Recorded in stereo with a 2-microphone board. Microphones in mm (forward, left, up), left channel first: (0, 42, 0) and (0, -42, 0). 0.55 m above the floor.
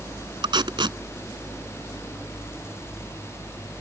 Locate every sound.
0.4 s tape being pulled: 75° right (ahead or behind)